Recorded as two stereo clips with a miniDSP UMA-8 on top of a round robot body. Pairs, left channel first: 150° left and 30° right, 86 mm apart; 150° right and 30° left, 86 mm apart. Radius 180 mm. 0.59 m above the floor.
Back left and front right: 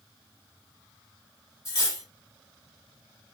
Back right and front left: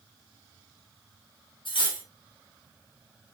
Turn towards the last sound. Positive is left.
turn(degrees=-165)